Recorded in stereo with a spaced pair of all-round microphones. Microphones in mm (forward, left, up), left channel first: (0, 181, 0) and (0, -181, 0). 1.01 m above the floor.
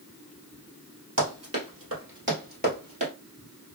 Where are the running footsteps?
45° right (ahead or behind), 1.6 m; by 3.1 s 20° right (ahead or behind), 1.8 m.